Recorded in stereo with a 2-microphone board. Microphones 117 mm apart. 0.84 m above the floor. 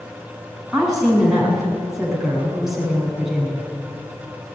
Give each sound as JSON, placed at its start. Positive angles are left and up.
{"t": 0.7, "sound": "a woman speaking", "side_deg": -5, "distance_m": 7.5}